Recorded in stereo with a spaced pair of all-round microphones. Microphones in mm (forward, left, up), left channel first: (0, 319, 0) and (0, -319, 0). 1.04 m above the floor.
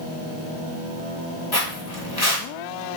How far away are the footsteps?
About 1.4 m.